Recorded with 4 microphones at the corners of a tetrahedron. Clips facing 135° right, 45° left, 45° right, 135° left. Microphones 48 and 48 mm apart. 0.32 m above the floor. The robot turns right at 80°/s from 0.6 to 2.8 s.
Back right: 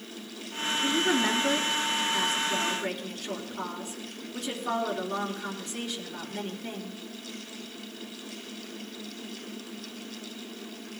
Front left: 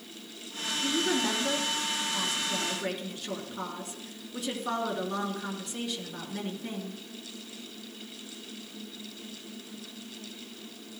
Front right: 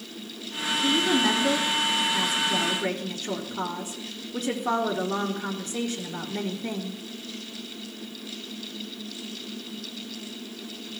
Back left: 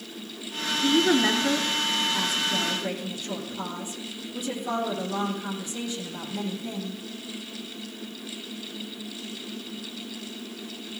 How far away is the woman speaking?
About 3.5 m.